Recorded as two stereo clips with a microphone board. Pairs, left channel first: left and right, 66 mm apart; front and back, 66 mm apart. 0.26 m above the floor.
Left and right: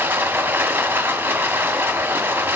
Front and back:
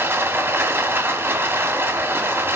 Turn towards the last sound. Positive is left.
turn(degrees=-140)